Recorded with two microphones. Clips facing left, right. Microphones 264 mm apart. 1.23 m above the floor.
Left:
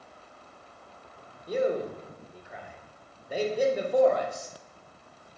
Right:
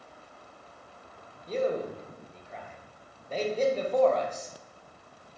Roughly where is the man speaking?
Centre.